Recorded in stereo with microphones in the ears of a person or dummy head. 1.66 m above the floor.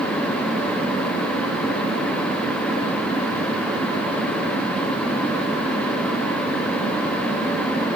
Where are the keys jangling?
No keys jangling in this recording.